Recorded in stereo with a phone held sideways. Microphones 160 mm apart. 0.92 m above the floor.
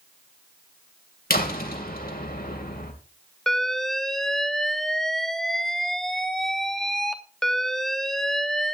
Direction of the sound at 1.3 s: 70° left (ahead or behind).